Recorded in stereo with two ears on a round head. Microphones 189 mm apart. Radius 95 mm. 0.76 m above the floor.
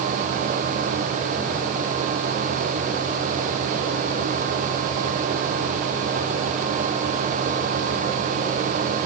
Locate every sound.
Only background noise.